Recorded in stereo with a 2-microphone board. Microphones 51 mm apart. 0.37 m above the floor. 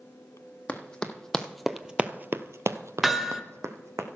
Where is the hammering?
5° right (ahead or behind), 0.8 m.